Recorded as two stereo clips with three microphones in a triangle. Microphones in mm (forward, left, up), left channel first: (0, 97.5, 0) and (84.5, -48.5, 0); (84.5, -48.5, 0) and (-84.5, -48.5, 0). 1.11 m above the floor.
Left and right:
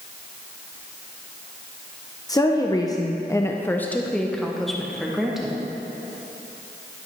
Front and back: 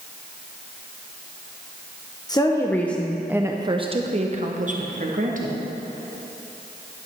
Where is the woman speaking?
55° left, 0.8 m; by 5.6 s 145° right, 1.3 m.